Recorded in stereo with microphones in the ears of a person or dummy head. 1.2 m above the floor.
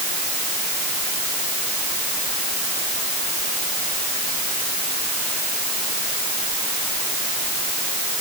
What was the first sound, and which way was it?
Only background noise.